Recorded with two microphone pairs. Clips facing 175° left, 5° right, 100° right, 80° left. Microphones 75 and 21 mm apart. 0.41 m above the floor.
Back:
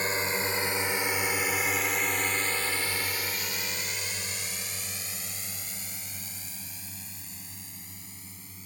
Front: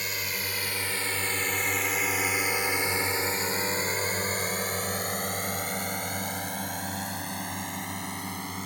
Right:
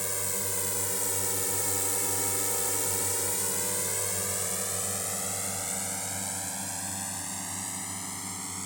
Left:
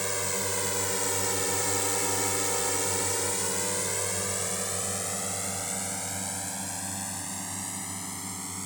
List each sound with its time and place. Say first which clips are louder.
0.0 s a drone: back 5 dB, left 4 dB; 140° left; by 8.7 s 10° right